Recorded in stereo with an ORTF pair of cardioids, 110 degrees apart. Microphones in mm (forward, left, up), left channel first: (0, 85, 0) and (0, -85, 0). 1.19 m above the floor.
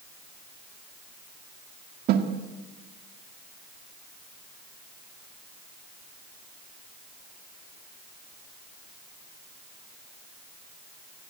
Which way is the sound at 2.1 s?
70° right.